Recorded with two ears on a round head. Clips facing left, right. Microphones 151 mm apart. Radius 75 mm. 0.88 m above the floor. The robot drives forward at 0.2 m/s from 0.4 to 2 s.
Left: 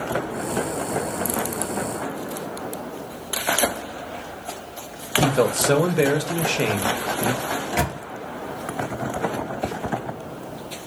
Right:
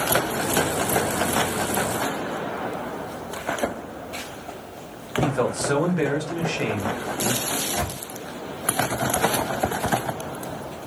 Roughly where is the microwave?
Left.